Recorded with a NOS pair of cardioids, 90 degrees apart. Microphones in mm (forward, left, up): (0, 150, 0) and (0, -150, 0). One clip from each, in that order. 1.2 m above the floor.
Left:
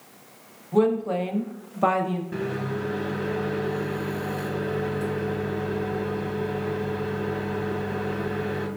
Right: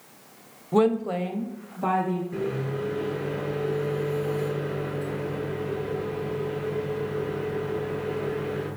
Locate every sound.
0.7 s a woman speaking: 30° right, 0.5 m; by 2.2 s 60° left, 0.9 m
2.3 s a microwave: 65° left, 1.1 m